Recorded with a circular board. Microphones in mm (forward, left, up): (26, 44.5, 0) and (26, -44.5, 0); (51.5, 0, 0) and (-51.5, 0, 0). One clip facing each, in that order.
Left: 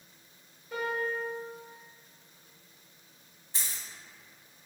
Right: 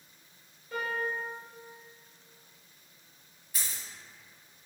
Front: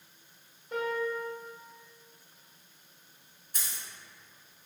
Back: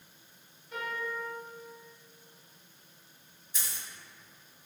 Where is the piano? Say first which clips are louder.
Left 1 dB, front 5 dB; 15° left, 1.5 m.